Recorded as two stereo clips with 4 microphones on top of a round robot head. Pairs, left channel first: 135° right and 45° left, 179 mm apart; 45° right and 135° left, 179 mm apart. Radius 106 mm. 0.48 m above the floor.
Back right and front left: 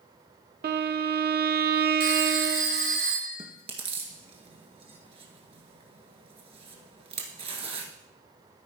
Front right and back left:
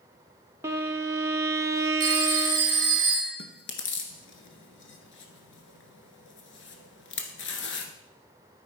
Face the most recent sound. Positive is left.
turn(degrees=-20)